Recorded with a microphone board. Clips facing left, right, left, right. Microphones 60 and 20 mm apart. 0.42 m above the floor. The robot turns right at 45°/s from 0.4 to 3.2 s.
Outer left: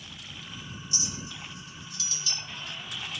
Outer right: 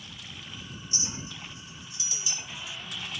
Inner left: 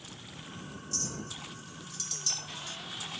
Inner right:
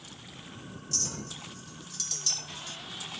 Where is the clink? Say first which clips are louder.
Even, inner right 4 dB; 30° right (ahead or behind); by 2.8 s 5° right (ahead or behind).